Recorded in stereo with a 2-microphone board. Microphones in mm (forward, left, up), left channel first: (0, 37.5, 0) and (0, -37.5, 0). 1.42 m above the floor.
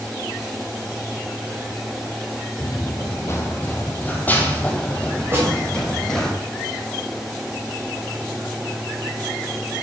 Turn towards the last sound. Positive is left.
turn(degrees=-30)  # may be behind; listen again after turning